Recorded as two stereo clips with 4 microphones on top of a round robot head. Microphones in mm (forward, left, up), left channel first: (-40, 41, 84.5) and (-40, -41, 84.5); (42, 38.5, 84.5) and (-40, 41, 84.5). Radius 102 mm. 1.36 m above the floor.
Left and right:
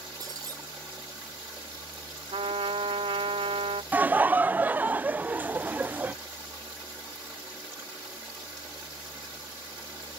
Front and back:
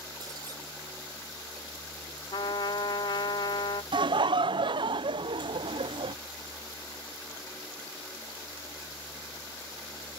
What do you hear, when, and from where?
0.2 s breaking glass: 135° right
2.3 s a trumpet: 50° right
3.9 s laughter: 160° right